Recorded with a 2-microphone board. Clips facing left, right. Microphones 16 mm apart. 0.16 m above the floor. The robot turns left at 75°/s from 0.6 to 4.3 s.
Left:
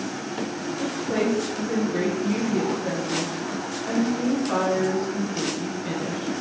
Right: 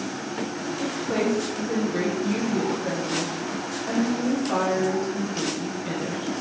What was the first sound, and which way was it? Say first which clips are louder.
A woman speaking: left 1 dB; 25° right (ahead or behind).